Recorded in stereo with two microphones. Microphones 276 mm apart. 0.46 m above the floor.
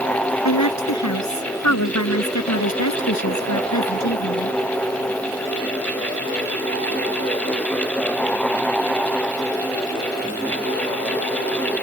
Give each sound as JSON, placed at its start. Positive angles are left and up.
{"t": 0.5, "sound": "a woman speaking", "side_deg": 80}